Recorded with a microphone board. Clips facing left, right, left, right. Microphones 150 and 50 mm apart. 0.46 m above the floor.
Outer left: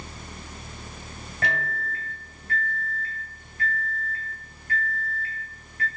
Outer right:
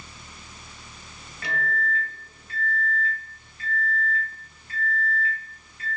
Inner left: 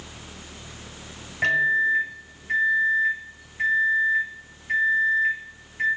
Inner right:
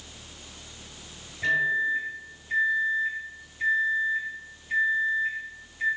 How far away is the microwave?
About 1.6 m.